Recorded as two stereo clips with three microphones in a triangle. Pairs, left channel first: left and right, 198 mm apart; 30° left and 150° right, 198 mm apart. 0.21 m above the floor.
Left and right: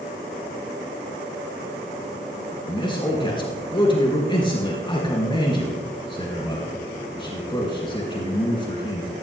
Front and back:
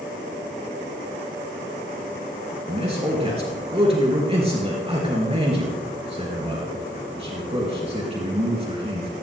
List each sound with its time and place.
2.7 s a man speaking: 155° left, 4 m